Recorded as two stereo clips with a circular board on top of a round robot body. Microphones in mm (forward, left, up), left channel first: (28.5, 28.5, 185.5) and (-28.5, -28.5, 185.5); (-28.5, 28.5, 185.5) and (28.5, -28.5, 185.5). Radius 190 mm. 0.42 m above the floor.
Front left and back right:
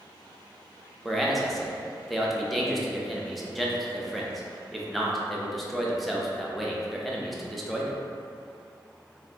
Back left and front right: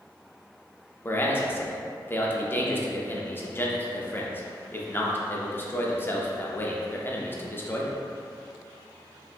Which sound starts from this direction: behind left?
A man speaking, at 1.1 s.